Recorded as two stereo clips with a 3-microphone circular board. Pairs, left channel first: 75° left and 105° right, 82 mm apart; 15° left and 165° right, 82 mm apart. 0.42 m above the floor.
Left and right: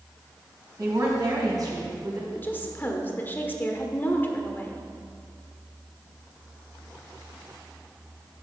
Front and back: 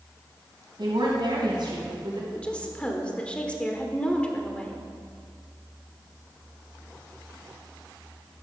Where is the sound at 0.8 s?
150° right, 3.5 m; by 2.2 s 145° right, 4 m.